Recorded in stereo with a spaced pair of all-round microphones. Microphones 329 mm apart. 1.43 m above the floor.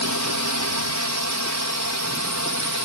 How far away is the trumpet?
No trumpet in this recording.